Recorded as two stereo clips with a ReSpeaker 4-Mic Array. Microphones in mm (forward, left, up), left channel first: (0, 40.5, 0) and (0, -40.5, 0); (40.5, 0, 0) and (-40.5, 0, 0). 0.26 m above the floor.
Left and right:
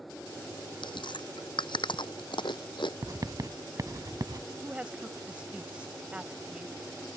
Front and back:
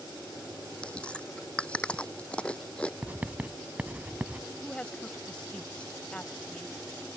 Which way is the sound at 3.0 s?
110° right.